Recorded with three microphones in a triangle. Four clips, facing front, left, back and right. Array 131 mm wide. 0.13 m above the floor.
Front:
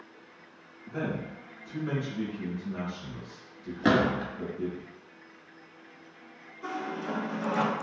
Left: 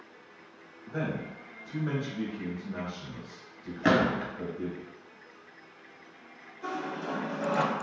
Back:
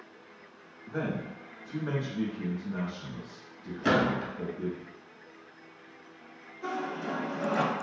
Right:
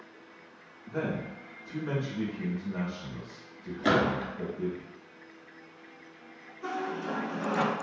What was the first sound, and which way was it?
A man speaking, 155° left.